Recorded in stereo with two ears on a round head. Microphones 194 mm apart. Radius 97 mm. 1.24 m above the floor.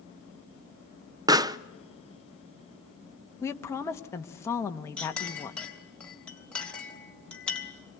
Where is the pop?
20° right (ahead or behind), 0.7 m.